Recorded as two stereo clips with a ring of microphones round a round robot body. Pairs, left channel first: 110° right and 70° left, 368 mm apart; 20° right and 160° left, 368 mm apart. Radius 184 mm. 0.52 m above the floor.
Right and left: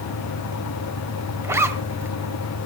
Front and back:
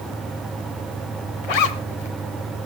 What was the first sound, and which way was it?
A zipper, 15° right.